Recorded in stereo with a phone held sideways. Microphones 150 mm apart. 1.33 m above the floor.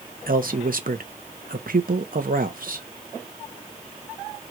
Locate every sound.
0.3 s a man speaking: 70° right (ahead or behind), 1.0 m